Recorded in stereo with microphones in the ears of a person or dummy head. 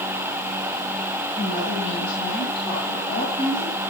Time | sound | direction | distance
1.4 | a woman speaking | 45° left (ahead or behind) | 9.5 m